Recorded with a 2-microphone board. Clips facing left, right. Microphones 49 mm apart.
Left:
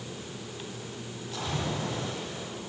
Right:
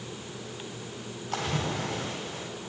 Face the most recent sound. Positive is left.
turn(degrees=-60)  # may be behind; listen again after turning